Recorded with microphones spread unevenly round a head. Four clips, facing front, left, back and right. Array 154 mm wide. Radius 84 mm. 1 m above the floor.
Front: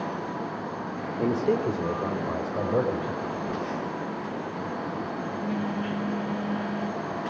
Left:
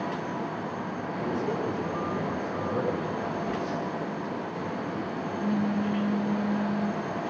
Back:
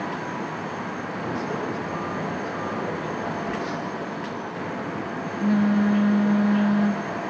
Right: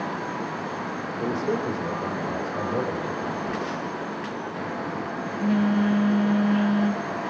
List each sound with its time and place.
1.2 s a man speaking: 30° right, 2.5 m; by 3.1 s 15° right, 5 m
3.2 s a phone buzzing: 135° right, 1.3 m